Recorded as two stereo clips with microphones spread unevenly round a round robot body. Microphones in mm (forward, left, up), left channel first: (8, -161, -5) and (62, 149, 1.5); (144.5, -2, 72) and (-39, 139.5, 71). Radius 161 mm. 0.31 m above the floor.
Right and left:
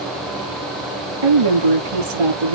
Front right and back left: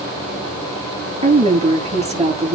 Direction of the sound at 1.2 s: 80° left.